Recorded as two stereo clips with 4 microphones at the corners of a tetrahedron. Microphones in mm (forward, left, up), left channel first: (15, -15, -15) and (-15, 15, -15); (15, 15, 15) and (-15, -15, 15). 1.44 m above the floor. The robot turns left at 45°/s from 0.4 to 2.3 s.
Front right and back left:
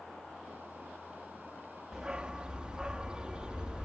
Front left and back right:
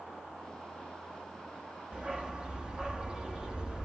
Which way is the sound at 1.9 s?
160° right.